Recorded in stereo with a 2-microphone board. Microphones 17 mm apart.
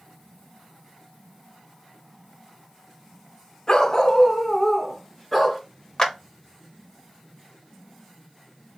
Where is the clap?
30° left (ahead or behind), 0.9 m.